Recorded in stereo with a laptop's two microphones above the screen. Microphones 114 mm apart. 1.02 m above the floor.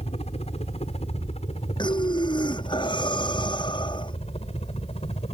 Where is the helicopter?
65° left (ahead or behind).